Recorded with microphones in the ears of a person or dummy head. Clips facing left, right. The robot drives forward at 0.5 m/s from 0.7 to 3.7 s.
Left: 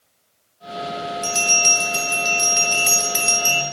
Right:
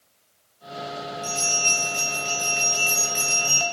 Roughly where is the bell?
Left.